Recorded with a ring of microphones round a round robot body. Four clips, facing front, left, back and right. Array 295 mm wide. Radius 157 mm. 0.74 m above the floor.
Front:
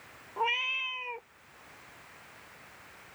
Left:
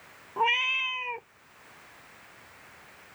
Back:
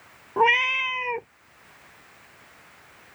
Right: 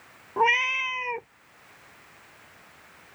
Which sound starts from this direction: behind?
A cat meowing, at 0.4 s.